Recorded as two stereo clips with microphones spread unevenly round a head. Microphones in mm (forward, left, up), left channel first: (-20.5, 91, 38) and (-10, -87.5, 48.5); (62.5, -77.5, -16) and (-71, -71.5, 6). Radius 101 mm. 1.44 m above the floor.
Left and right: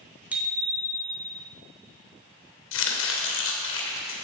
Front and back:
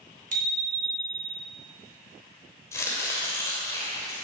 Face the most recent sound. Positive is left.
turn(degrees=75)